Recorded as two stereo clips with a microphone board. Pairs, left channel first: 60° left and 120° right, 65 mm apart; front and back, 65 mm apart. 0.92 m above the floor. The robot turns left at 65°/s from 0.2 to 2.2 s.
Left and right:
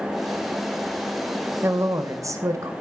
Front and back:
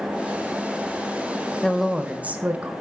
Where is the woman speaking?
80° right, 0.7 m; by 2.7 s 115° right, 0.7 m.